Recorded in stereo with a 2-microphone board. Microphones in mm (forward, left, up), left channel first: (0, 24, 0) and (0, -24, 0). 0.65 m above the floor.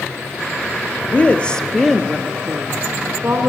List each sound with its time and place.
1.0 s a woman speaking: 35° left (ahead or behind), 0.8 m; by 3.5 s 50° right (ahead or behind), 1.1 m